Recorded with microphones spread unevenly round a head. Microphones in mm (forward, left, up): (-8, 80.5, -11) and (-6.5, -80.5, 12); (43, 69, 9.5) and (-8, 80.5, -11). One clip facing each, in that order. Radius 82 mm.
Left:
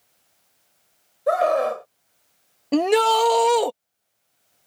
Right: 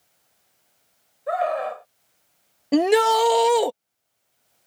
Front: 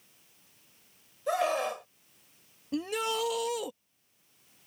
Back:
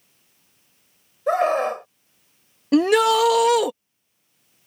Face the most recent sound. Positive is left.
turn(degrees=-170)